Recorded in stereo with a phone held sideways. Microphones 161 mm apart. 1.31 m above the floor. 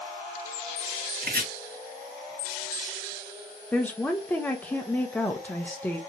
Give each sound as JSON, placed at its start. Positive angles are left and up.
{"t": 1.2, "sound": "chopping", "side_deg": -85, "distance_m": 1.9}
{"t": 3.7, "sound": "a woman speaking", "side_deg": 10, "distance_m": 0.7}